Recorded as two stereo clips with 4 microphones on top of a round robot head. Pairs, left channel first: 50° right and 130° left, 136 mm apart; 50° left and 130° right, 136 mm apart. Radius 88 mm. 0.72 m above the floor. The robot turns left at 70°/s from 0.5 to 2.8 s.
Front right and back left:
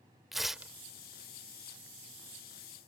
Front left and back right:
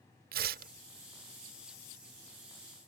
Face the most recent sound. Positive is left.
turn(degrees=60)